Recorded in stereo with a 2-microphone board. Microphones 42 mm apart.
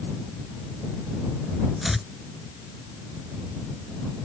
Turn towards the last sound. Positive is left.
turn(degrees=-5)  # may be behind; listen again after turning